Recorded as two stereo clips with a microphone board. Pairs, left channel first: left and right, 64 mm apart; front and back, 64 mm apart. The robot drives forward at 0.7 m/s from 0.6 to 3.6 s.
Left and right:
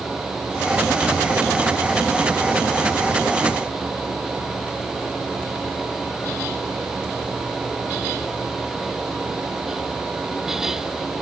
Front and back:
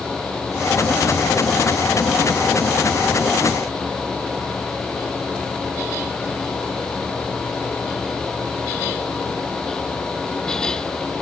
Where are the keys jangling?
I don't hear keys jangling.